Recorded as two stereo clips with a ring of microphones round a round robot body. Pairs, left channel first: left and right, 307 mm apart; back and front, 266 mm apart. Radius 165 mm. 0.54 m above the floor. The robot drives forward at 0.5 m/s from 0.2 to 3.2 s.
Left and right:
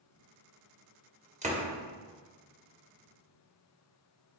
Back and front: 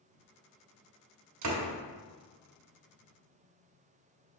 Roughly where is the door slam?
Ahead.